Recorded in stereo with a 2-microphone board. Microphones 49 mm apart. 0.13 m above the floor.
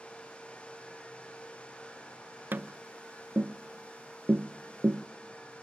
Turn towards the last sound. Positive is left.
turn(degrees=-45)  # may be behind; listen again after turning